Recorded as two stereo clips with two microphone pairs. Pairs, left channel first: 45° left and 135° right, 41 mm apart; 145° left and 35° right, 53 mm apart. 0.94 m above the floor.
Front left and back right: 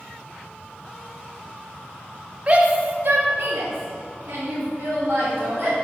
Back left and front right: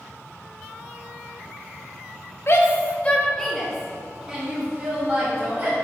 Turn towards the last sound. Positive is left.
turn(degrees=-105)